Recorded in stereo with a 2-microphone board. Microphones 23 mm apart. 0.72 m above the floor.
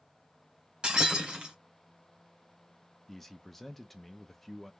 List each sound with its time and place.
0.8 s breaking glass: 40° right (ahead or behind), 1.7 m
3.1 s a man speaking: 10° left (ahead or behind), 0.6 m